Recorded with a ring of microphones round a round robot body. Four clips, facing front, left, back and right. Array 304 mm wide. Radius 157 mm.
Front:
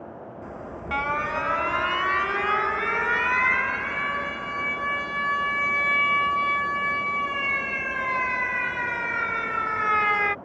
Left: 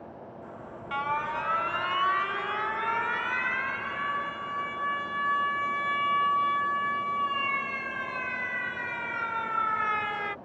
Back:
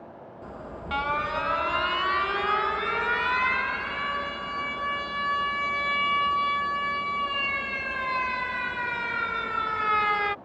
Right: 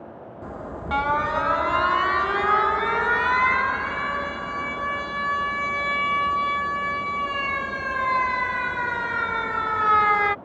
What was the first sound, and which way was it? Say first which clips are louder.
An alarm: right 11 dB, front 1 dB; 80° right.